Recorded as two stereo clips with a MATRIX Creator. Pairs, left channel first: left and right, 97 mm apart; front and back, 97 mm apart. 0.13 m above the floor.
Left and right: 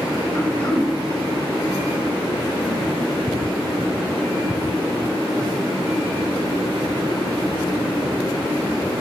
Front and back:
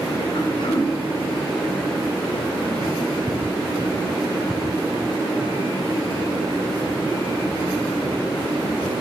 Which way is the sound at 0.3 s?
30° left.